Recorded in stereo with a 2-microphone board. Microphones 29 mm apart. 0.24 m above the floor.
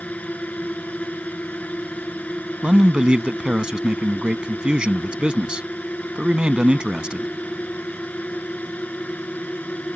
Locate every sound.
0.0 s a drone: 65° left (ahead or behind)
2.6 s a man speaking: 35° right (ahead or behind)